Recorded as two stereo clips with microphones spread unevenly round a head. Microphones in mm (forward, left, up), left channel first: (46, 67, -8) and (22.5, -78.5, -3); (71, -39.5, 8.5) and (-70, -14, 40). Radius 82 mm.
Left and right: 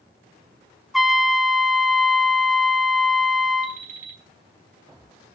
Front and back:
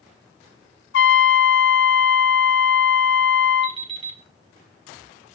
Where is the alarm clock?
145° right, 4 m.